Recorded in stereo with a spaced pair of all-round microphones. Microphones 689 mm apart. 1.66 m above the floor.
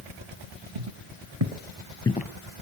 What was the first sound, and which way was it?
Footsteps, 40° right (ahead or behind).